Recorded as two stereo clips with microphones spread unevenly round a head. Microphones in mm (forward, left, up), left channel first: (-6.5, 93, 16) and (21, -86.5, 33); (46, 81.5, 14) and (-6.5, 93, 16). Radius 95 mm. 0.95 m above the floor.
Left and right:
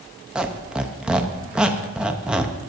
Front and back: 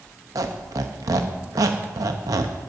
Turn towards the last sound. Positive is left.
turn(degrees=-170)